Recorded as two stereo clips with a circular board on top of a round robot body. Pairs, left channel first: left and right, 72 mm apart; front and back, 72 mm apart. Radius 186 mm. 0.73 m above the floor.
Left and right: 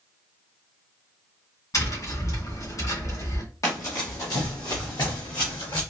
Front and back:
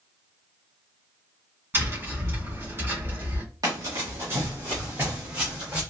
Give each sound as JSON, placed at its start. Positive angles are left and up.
{"t": 1.7, "sound": "tapping", "azimuth_deg": 120, "distance_m": 2.5}
{"t": 3.6, "sound": "running footsteps", "azimuth_deg": 135, "distance_m": 1.2}